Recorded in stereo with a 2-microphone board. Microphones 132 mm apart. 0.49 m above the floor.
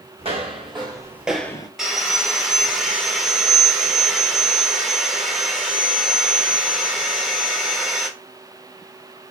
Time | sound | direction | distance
0.2 | footsteps | 50° right (ahead or behind) | 1.3 m
1.8 | sawing | 5° right (ahead or behind) | 0.7 m